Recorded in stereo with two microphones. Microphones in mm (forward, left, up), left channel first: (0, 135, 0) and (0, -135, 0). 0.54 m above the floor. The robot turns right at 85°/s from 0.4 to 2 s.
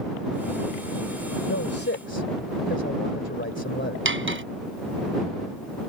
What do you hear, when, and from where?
1.5 s a man speaking: 85° left; by 4.0 s 130° left
4.0 s cutlery clinking: 45° right (ahead or behind)